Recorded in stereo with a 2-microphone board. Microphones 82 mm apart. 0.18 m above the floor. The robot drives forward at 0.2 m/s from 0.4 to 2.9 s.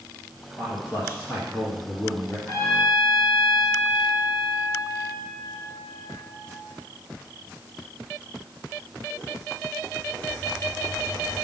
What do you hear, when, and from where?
0.6 s a man speaking: 35° left (ahead or behind), 2.5 m; by 2.4 s 30° left (ahead or behind), 2.5 m
2.5 s a trumpet: 50° left (ahead or behind), 2.5 m